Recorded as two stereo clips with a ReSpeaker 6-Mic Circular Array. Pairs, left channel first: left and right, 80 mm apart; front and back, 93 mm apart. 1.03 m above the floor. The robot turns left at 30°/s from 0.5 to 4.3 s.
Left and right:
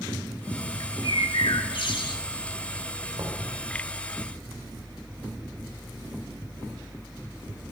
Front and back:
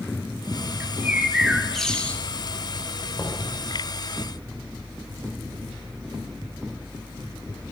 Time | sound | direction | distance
0.8 | a bird | 115° left | 1.5 m
3.2 | knocking | 55° right | 3.5 m